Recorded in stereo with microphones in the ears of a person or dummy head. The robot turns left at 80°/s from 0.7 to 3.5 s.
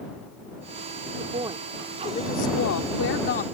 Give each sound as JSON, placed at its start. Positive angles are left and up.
{"t": 1.2, "sound": "a woman speaking", "azimuth_deg": -135}